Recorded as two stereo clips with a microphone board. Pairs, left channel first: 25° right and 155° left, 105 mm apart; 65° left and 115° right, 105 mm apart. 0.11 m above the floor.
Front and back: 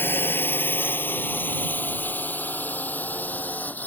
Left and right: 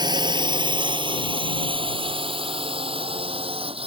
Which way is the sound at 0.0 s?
85° right.